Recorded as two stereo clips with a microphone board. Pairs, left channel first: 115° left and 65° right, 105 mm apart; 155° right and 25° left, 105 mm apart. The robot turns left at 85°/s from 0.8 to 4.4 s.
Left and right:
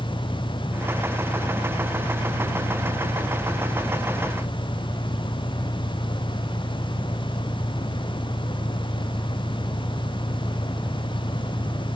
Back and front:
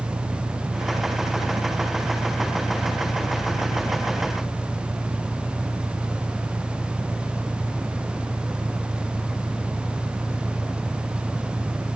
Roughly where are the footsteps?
No footsteps in this recording.